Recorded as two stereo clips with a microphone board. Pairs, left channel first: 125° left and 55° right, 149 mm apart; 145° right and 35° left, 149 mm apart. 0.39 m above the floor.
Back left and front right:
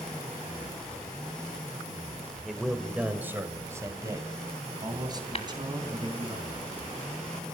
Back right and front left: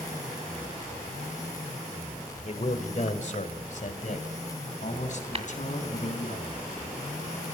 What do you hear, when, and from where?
2.5 s a man speaking: 145° right, 1.8 m; by 6.3 s 110° right, 4.5 m
5.3 s tapping: 80° left, 1.7 m